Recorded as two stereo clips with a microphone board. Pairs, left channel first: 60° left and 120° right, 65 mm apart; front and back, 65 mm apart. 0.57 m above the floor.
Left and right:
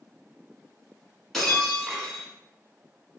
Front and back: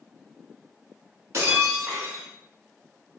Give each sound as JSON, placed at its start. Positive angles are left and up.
{"t": 1.3, "sound": "breaking glass", "azimuth_deg": 145, "distance_m": 0.8}